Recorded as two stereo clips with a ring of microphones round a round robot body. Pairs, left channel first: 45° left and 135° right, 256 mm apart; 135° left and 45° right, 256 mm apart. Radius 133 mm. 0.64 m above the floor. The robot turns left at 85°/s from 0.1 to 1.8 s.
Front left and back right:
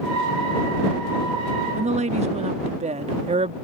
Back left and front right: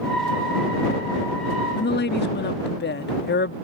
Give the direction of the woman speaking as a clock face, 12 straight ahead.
6 o'clock.